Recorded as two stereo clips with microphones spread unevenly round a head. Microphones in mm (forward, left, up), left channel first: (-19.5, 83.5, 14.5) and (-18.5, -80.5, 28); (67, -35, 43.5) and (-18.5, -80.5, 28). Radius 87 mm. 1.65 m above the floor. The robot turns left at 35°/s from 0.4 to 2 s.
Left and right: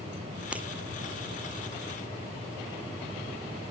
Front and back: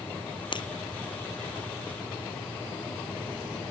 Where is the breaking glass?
5° right; by 0.7 s 10° right.